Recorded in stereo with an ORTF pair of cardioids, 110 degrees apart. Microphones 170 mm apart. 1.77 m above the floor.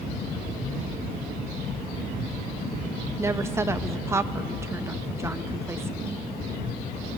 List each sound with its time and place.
3.2 s a woman speaking: 15° right, 0.6 m